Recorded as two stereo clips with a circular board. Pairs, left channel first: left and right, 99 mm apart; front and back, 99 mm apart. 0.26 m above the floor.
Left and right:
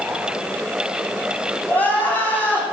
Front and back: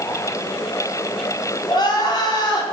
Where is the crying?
25° left, 2 m.